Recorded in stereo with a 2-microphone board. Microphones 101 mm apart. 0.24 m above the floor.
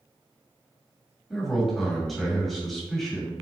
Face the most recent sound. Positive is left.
turn(degrees=0)  # may be behind; listen again after turning